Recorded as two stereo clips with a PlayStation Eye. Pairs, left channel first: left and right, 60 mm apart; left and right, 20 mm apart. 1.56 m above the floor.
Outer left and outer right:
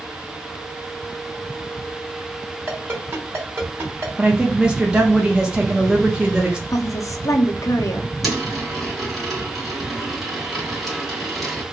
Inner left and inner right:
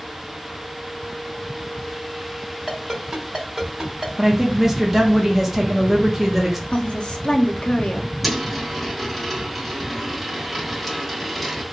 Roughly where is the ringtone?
Right.